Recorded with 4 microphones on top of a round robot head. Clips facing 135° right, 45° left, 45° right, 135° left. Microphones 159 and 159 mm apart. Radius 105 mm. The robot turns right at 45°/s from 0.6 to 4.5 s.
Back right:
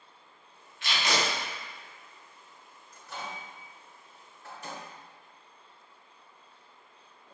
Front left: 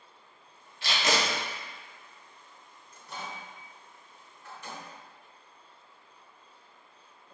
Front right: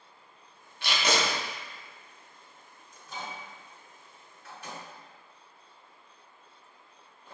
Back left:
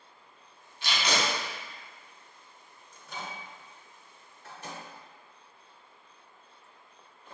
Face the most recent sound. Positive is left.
turn(degrees=180)